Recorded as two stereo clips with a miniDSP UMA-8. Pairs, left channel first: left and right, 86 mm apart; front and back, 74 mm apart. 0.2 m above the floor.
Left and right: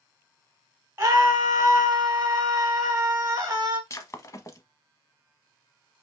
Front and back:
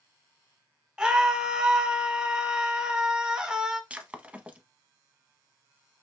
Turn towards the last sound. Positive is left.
turn(degrees=115)